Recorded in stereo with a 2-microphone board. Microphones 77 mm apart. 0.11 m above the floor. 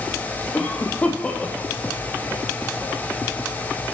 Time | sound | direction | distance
0.5 | a cough | 20° left (ahead or behind) | 3.5 m